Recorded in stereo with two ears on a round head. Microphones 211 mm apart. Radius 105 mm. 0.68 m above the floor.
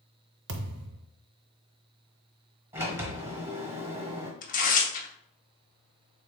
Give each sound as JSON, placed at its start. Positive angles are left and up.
{"t": 0.5, "sound": "a thud", "side_deg": -50, "distance_m": 0.6}
{"t": 2.7, "sound": "a sliding door", "side_deg": -10, "distance_m": 1.1}
{"t": 4.4, "sound": "tearing paper", "side_deg": 35, "distance_m": 0.8}